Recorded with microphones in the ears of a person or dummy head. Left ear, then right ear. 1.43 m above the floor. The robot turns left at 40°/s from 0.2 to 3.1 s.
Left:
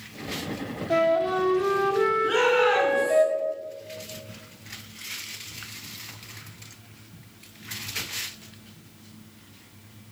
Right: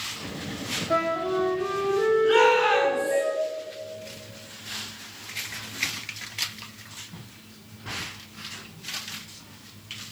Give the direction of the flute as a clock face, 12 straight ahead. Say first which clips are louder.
Left 4 dB; 6 o'clock.